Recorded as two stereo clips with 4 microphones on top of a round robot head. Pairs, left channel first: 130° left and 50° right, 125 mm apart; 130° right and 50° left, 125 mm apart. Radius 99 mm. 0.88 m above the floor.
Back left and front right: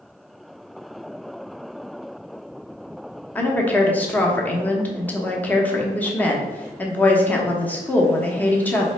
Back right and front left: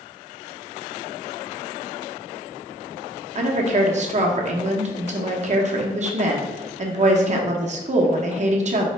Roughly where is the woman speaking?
Ahead left.